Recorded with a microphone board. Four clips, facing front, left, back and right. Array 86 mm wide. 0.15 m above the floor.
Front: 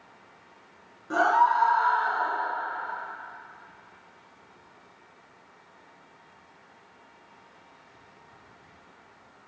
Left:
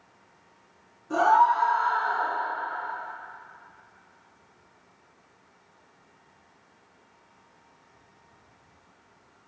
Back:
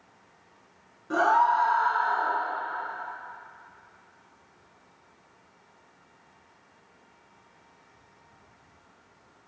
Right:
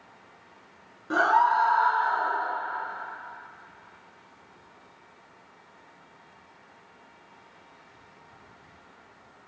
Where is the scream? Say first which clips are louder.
Left 2 dB, even; 85° right, 1.6 m; by 2.3 s 10° right, 1.0 m.